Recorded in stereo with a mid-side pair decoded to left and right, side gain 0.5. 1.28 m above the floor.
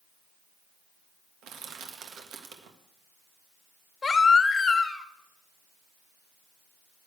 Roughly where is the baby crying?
Ahead left.